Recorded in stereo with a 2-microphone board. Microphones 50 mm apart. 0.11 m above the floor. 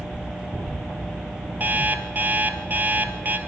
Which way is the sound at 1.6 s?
40° right (ahead or behind).